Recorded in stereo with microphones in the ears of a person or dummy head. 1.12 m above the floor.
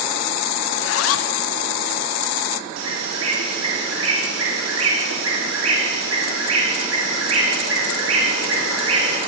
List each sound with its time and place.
0.7 s a zipper: 80° left, 0.7 m
2.8 s a bird: 75° right (ahead or behind), 3 m